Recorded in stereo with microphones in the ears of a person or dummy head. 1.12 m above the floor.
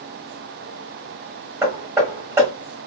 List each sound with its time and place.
1.6 s hammering: 10° right (ahead or behind), 1.6 m